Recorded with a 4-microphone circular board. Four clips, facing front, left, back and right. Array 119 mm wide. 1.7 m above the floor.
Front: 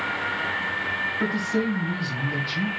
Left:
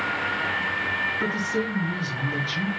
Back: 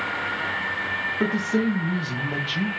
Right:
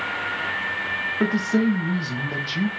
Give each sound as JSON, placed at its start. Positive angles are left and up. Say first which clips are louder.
{"t": 1.2, "sound": "a man speaking", "louder": "right 8 dB, back 3 dB", "azimuth_deg": -120, "distance_m": 2.0}